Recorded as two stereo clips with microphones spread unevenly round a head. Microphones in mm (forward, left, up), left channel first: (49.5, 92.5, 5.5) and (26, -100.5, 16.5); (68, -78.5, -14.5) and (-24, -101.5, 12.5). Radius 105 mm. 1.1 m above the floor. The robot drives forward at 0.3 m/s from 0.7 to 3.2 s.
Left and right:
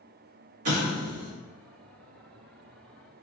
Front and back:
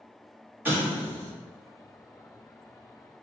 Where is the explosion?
95° right, 1.7 m; by 1.3 s 100° right, 1.7 m.